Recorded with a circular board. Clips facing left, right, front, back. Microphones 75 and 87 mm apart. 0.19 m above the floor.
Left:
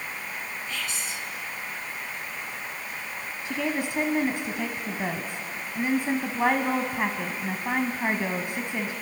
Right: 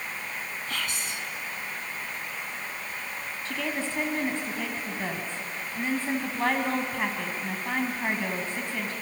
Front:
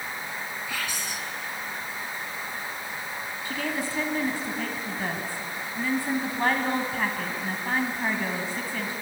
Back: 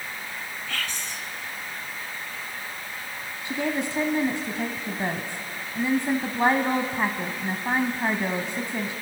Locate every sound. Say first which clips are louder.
0.7 s whispering: right 2 dB, back 1 dB; 75° right, 1.7 m
3.5 s a woman speaking: left 3 dB, back 4 dB; 145° left, 1.2 m